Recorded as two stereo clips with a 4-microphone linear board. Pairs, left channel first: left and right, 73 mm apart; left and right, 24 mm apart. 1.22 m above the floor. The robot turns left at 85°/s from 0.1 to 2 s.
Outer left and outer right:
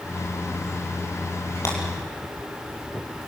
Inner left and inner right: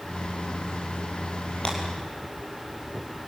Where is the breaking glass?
40° left (ahead or behind), 6.5 m; by 1.8 s 30° left (ahead or behind), 6.5 m.